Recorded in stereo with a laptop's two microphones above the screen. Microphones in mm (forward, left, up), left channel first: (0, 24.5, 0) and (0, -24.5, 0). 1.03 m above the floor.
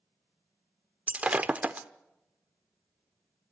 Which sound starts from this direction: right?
Breaking glass, at 1.1 s.